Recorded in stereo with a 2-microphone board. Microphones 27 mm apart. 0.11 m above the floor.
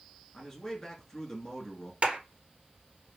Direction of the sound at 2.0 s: 50° right (ahead or behind).